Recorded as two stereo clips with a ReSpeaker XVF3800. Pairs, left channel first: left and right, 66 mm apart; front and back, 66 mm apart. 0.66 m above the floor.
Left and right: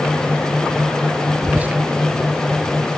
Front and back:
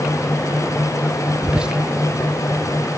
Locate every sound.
1.4 s whispering: 115° right, 0.5 m